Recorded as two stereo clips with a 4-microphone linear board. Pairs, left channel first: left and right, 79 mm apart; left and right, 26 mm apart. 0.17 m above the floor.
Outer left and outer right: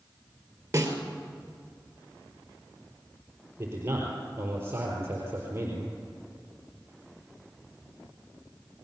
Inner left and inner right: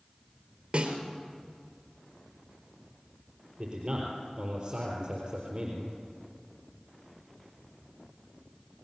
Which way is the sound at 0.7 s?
40° right (ahead or behind).